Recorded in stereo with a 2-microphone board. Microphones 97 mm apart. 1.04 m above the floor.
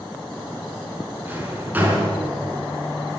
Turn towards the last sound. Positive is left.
turn(degrees=-20)  # may be behind; listen again after turning